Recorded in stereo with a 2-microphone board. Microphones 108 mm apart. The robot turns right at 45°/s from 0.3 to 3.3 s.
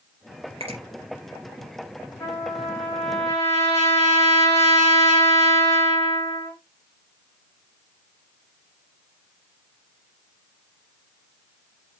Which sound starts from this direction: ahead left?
A trumpet, at 2.2 s.